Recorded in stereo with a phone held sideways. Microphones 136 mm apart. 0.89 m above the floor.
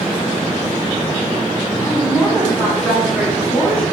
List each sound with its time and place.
1.8 s a woman speaking: 10° right (ahead or behind), 7.5 m; by 3.8 s 10° left (ahead or behind), 8.5 m